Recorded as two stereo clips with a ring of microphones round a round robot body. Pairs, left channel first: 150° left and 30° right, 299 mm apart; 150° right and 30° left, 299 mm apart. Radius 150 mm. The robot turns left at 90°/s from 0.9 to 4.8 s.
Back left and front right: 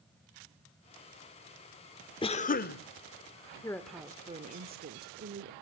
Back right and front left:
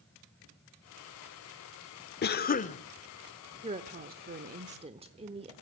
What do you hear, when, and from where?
2.2 s a cough: 150° right, 1.0 m; by 2.8 s 155° left, 1.0 m
3.6 s a woman speaking: 85° left, 1.1 m; by 5.5 s 20° right, 1.1 m